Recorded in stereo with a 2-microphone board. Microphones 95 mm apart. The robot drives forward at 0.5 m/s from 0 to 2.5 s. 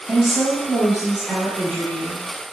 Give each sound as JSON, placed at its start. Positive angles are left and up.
{"t": 0.1, "sound": "a woman speaking", "side_deg": -10, "distance_m": 1.0}